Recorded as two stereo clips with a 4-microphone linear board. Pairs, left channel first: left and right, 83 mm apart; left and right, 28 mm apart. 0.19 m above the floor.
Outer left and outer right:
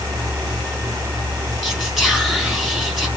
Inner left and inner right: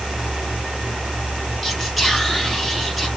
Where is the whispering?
Centre (ahead or behind), 1.6 m.